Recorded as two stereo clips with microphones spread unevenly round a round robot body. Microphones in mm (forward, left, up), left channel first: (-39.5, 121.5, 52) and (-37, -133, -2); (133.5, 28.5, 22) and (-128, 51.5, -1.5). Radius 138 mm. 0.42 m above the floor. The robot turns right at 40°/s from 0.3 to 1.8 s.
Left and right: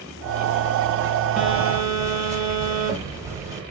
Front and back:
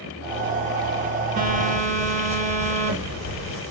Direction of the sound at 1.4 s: 165° right.